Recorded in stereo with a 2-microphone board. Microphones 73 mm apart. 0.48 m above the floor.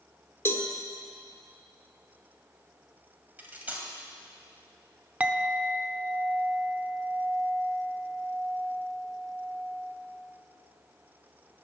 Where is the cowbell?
30° left (ahead or behind), 1.6 m.